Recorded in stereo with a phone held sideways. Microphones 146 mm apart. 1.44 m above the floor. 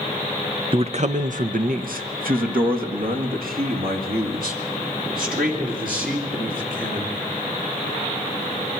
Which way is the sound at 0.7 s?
35° right (ahead or behind).